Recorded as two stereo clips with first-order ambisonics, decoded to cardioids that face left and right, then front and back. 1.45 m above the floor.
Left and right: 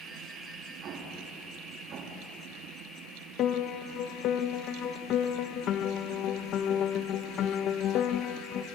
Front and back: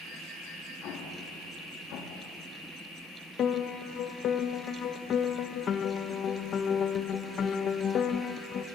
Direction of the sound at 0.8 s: 40° right.